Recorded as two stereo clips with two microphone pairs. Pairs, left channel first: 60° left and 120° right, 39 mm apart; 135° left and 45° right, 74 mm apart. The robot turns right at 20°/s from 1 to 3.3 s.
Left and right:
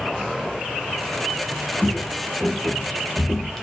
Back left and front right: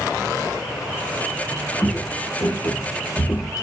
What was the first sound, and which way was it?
Footsteps, 150° left.